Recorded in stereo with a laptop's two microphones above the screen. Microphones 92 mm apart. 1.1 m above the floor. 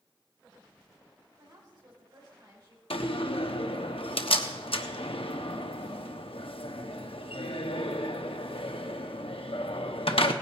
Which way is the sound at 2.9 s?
80° left.